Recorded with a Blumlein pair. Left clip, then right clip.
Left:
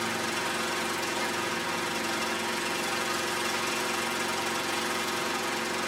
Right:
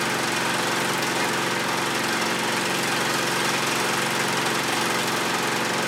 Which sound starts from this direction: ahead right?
An engine running, at 0.0 s.